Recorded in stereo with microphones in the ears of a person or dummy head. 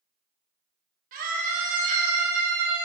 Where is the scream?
50° right (ahead or behind), 1.9 m.